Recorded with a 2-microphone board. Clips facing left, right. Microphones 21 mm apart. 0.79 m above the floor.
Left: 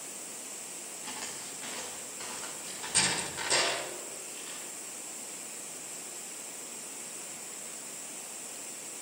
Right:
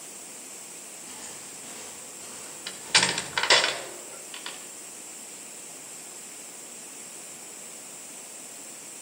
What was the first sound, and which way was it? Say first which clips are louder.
Footsteps: left 4 dB; 45° left (ahead or behind).